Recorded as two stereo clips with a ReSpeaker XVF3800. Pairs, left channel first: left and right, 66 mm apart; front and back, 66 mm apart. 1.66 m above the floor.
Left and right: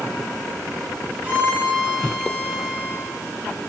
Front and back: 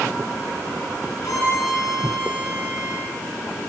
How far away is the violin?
About 4 m.